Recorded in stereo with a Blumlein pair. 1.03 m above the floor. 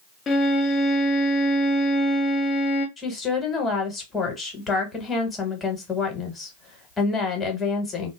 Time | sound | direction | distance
0.3 | a violin | 20° left | 0.7 m
3.0 | a woman speaking | 15° left | 1.1 m